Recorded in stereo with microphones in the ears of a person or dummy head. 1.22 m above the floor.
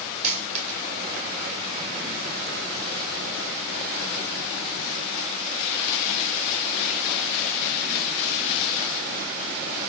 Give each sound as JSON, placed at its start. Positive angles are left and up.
{"t": 0.2, "sound": "a dropped coin", "side_deg": -45, "distance_m": 1.9}